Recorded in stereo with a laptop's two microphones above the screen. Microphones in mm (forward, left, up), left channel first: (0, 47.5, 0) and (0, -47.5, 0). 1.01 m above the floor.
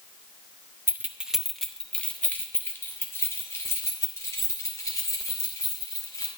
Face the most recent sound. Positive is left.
turn(degrees=40)  # may be behind; listen again after turning